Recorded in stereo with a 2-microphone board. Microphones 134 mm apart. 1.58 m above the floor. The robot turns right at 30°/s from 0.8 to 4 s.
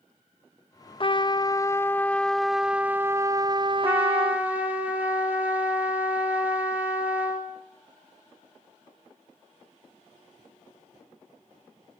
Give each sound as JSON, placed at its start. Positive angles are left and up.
{"t": 1.0, "sound": "a trumpet", "azimuth_deg": 135, "distance_m": 0.5}
{"t": 3.8, "sound": "a trumpet", "side_deg": -20, "distance_m": 3.5}